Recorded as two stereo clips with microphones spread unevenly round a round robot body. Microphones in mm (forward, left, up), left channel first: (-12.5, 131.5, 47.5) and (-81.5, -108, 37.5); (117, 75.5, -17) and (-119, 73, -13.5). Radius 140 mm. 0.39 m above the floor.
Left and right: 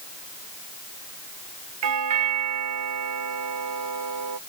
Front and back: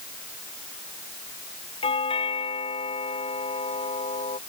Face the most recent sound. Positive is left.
turn(degrees=-75)